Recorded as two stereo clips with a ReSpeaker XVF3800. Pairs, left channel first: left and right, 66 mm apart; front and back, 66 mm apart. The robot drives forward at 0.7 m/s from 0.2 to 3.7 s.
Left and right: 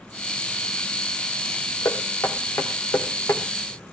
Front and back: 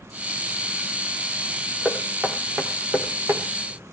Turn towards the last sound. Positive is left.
turn(degrees=140)